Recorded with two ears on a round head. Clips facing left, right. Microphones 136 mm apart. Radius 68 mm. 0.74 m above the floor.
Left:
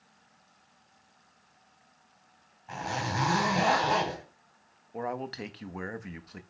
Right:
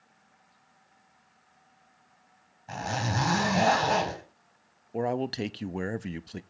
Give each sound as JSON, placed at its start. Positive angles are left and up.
{"t": 2.7, "sound": "a zipper", "side_deg": -45, "distance_m": 5.0}
{"t": 4.9, "sound": "a man speaking", "side_deg": -35, "distance_m": 0.5}